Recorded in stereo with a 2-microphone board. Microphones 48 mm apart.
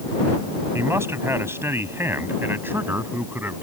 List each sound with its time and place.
0.7 s a man speaking: 65° right (ahead or behind); by 3.6 s 45° right (ahead or behind)